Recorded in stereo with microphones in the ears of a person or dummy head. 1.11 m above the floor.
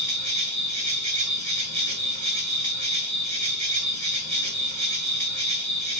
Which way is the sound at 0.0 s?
50° right (ahead or behind).